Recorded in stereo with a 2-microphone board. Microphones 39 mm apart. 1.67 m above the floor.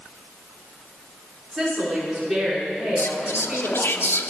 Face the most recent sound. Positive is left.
turn(degrees=80)